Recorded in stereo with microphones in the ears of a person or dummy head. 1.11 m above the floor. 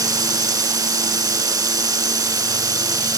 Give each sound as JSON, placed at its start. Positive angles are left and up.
{"t": 0.0, "sound": "running water", "side_deg": -20}